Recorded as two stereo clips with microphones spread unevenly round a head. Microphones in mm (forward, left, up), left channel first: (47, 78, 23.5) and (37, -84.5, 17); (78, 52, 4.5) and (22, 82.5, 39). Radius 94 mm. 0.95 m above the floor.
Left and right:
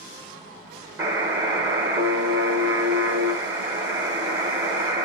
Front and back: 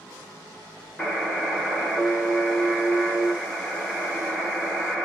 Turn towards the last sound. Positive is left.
turn(degrees=-160)